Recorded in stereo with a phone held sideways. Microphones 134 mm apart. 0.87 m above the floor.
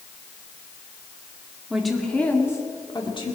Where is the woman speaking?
5° right (ahead or behind), 2 m; by 3.4 s 40° left (ahead or behind), 2.5 m.